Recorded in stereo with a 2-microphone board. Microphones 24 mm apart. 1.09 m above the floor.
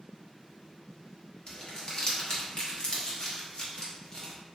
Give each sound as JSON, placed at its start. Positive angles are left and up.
{"t": 1.5, "sound": "crumpling", "side_deg": 35, "distance_m": 0.9}